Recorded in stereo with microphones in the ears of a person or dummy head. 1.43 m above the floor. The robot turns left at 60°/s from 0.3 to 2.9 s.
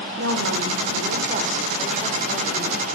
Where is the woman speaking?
75° right, 0.8 m; by 2.8 s 135° left, 0.8 m.